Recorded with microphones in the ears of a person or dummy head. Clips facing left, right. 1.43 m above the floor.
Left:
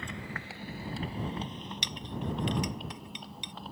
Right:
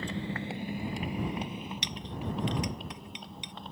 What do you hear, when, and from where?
0.0 s a motorcycle: 35° right (ahead or behind); by 3.7 s centre (ahead or behind)
1.8 s a clink: 85° left